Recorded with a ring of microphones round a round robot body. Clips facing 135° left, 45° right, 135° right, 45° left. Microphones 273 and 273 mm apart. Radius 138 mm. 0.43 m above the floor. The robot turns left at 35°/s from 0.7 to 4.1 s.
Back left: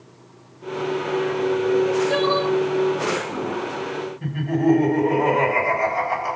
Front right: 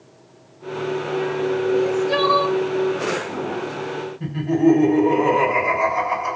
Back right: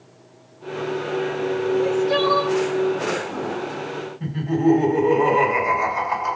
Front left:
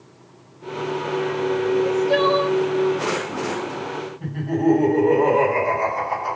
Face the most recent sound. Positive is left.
turn(degrees=-65)